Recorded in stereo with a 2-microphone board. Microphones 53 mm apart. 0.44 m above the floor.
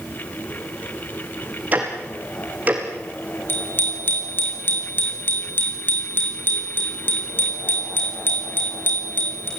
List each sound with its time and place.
1.7 s ticking: 30° right (ahead or behind), 5 m
3.5 s a bicycle bell: 40° left (ahead or behind), 5.5 m